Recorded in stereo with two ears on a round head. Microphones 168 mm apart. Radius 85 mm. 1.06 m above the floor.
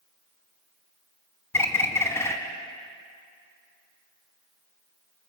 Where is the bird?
15° left (ahead or behind), 1.8 m.